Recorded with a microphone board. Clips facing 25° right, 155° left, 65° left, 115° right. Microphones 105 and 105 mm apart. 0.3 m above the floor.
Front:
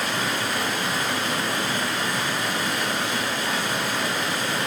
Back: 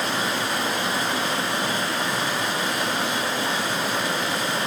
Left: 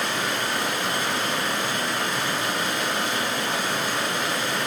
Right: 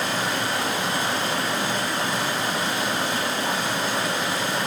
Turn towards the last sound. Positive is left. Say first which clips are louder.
# back 1 dB, right 1 dB
turn(degrees=-155)